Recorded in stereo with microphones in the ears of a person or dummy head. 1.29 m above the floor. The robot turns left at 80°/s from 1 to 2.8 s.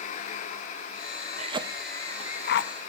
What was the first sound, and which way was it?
A cough, 45° right (ahead or behind).